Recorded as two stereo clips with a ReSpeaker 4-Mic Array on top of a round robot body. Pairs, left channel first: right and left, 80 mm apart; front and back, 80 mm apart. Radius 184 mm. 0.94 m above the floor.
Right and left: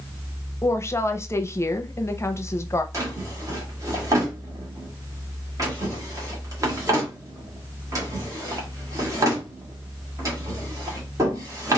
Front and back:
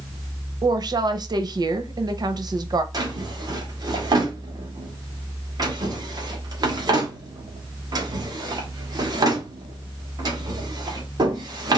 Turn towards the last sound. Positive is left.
turn(degrees=140)